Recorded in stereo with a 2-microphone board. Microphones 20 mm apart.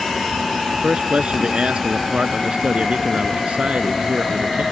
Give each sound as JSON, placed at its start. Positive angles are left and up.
{"t": 0.7, "sound": "a man speaking", "side_deg": -65}